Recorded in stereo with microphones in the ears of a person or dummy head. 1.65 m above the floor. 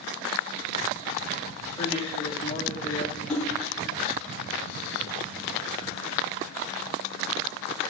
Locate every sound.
1.8 s a man speaking: 20° left (ahead or behind), 3 m
3.3 s a splash: 5° left (ahead or behind), 4.5 m